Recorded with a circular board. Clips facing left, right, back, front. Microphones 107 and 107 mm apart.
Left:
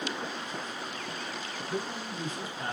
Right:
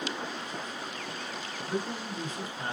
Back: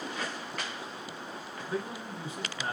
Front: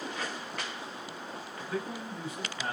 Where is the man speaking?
120° right, 2 m.